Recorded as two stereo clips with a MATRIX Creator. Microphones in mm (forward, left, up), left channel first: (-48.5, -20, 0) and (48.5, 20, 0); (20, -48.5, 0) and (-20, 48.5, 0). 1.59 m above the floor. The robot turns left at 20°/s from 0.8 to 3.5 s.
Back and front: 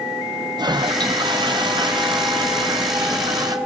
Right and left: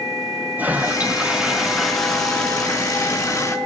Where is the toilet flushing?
45° left, 0.7 m; by 3.6 s 10° right, 0.7 m.